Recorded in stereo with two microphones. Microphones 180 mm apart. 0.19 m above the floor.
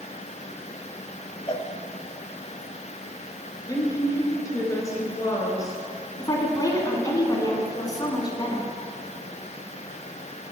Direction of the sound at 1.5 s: 30° left (ahead or behind).